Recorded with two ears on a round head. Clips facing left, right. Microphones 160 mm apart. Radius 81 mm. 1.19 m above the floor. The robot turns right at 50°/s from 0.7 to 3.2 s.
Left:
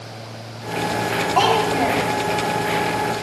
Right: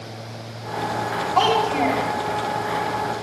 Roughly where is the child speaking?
Behind left.